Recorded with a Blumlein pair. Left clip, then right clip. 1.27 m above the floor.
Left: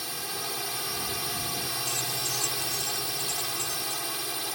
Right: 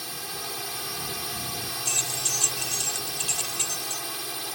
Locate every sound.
0.0 s a drone: 5° left
1.9 s keys jangling: 25° right